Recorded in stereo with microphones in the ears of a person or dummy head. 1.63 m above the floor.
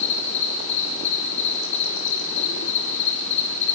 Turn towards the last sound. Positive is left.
turn(degrees=70)  # may be behind; listen again after turning